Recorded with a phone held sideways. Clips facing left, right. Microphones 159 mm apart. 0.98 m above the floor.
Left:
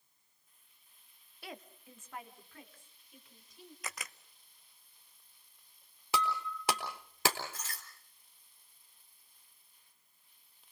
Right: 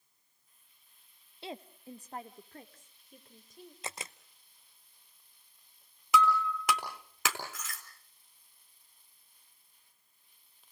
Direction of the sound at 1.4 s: 25° right (ahead or behind).